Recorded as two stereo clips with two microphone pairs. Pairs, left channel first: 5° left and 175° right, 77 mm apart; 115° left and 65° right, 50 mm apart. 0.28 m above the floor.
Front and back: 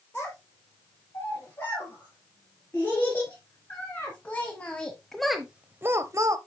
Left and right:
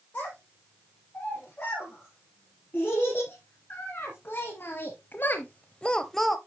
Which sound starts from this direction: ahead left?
A child speaking, at 0.1 s.